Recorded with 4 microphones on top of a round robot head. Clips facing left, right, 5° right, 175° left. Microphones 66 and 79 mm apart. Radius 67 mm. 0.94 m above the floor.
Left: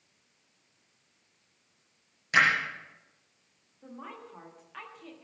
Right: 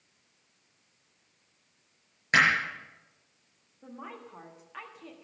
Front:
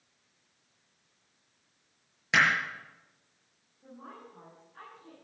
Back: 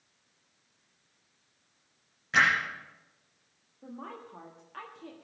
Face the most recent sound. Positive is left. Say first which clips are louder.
# right 1 dB, back 5 dB
turn(degrees=-175)